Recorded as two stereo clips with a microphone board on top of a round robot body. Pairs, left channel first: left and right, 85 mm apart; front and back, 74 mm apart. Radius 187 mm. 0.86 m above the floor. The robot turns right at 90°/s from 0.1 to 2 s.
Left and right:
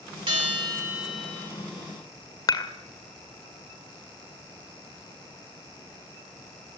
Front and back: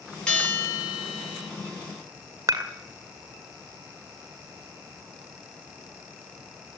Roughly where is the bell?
Right.